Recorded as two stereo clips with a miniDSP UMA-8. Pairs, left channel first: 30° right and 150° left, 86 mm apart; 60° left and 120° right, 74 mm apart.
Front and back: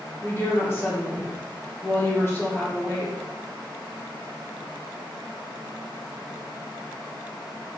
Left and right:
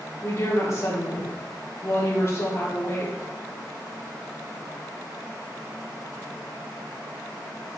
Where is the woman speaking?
25° left, 1.6 m.